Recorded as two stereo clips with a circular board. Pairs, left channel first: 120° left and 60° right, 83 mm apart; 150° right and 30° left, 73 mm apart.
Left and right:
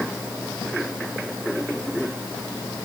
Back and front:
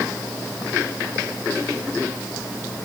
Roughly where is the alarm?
I don't hear an alarm.